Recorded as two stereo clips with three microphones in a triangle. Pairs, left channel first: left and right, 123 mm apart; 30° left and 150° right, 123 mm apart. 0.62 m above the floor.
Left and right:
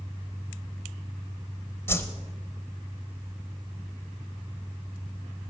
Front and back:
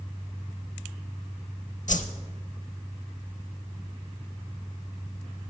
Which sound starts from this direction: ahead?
A whoosh, at 1.9 s.